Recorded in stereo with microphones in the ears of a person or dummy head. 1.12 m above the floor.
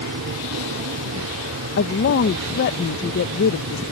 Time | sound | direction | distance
0.0 | an aircraft | 65° right (ahead or behind) | ?
1.8 | a woman speaking | 55° left (ahead or behind) | ?